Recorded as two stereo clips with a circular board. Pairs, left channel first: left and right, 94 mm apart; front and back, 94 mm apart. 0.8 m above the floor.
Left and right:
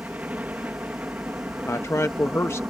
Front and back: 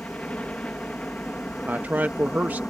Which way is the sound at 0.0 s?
55° right.